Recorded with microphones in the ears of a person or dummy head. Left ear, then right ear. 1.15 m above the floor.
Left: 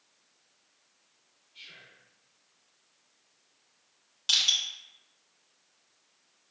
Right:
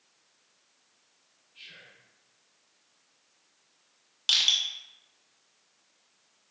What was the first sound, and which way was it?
Whispering, 40° left (ahead or behind).